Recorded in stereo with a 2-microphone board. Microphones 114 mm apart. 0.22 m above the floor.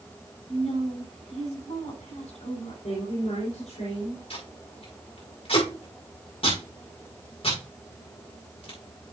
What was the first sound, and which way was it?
A woman speaking, 70° left (ahead or behind).